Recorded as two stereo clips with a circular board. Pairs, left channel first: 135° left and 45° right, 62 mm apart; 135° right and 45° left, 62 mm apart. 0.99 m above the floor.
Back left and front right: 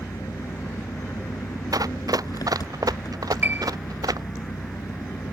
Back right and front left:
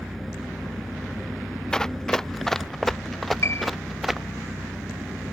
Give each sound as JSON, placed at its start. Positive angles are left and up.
{"t": 0.0, "sound": "an engine running", "azimuth_deg": 135}
{"t": 1.7, "sound": "running footsteps", "azimuth_deg": -55}
{"t": 3.4, "sound": "a piano", "azimuth_deg": -100}